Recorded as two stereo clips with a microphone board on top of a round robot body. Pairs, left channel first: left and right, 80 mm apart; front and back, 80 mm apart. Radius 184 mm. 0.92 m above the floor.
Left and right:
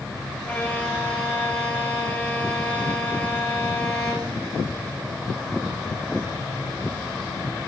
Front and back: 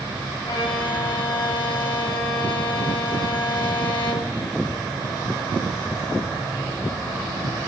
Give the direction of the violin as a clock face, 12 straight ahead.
12 o'clock.